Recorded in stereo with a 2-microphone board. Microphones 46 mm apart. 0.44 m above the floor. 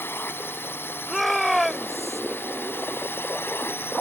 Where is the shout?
Centre (ahead or behind).